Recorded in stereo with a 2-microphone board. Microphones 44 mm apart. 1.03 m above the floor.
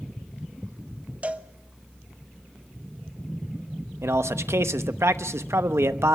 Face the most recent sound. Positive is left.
turn(degrees=-85)